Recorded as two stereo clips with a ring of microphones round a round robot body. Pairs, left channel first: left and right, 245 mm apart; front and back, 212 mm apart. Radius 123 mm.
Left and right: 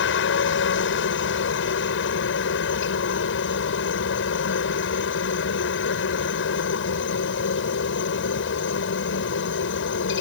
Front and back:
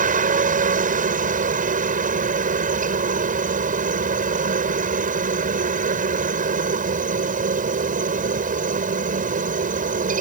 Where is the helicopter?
130° left.